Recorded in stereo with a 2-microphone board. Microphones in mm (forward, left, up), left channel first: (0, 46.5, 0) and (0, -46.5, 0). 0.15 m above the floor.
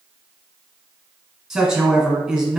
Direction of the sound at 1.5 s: 5° right (ahead or behind).